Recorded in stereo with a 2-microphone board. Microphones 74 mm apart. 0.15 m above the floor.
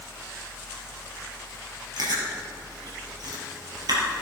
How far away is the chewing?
About 3.5 m.